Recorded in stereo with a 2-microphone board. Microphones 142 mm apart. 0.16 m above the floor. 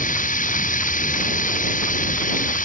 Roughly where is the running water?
Left.